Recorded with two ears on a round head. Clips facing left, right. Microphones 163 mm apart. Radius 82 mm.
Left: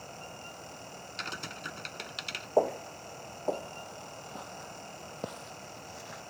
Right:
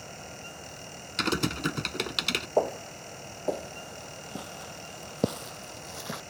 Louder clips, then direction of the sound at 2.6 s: Even; centre (ahead or behind).